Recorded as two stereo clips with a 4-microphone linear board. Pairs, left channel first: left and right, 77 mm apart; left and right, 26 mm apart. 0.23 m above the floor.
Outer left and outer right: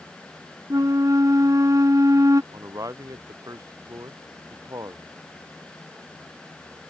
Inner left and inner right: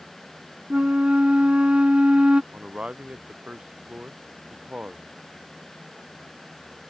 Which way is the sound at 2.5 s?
50° right (ahead or behind).